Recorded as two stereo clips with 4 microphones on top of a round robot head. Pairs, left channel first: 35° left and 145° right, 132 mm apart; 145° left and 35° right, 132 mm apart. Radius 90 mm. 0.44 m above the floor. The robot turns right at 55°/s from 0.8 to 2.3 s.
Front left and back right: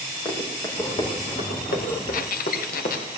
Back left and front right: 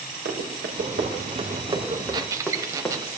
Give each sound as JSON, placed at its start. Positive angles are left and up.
{"t": 0.2, "sound": "running footsteps", "azimuth_deg": -35, "distance_m": 5.0}
{"t": 2.1, "sound": "a squeak", "azimuth_deg": 20, "distance_m": 0.9}